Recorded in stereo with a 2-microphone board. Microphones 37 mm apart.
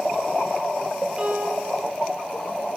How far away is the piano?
About 1.7 m.